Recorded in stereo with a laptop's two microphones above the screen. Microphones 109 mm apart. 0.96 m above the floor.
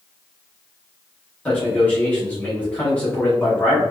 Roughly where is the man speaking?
Centre.